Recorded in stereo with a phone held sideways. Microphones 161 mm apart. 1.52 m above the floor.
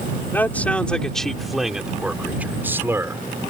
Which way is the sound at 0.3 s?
10° left (ahead or behind).